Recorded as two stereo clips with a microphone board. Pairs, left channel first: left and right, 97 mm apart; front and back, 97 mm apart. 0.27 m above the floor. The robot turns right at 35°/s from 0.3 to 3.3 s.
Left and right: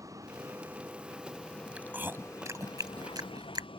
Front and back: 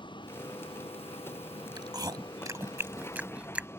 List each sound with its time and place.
0.0 s a vehicle: 35° right; by 3.8 s 65° left
1.8 s chewing: 160° right; by 3.7 s 105° right